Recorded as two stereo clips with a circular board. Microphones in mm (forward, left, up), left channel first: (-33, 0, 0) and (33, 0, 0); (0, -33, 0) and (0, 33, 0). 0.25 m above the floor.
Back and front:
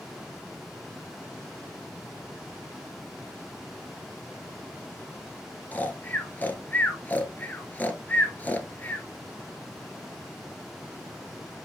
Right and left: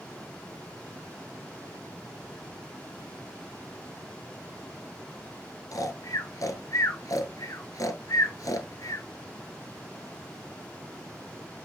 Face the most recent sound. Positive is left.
turn(degrees=-120)